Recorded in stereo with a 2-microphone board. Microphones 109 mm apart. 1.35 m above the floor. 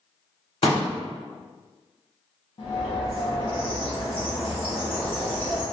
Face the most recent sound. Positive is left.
turn(degrees=55)  # may be behind; listen again after turning